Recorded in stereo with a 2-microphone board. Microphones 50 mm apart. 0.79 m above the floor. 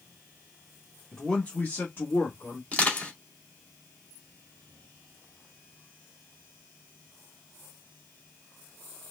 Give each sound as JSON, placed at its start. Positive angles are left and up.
{"t": 1.1, "sound": "a man speaking", "side_deg": 10, "distance_m": 1.0}
{"t": 2.7, "sound": "crushing", "side_deg": 25, "distance_m": 2.0}